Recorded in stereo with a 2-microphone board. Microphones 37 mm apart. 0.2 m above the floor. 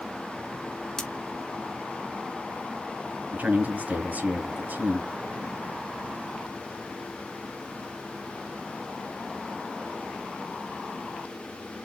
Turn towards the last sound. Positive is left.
turn(degrees=-55)  # may be behind; listen again after turning